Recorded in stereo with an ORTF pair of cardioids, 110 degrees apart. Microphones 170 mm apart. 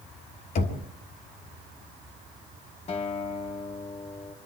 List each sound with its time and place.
0.6 s knocking: 60° left, 2.5 m
2.9 s a guitar: 40° left, 1.6 m